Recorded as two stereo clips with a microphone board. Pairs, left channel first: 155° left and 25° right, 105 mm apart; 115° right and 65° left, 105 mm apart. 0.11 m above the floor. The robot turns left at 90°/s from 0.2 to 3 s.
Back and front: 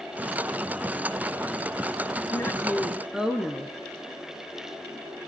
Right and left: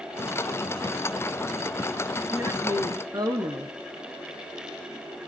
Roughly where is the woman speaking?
Behind left.